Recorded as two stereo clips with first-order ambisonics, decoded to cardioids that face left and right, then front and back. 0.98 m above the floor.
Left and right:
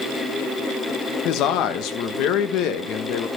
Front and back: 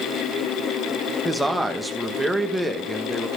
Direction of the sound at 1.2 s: 95° left.